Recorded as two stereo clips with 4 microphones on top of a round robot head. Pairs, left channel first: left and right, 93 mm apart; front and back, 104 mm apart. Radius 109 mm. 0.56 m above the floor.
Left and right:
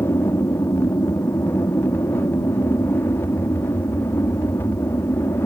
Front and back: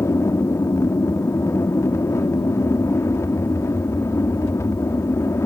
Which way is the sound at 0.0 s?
45° left.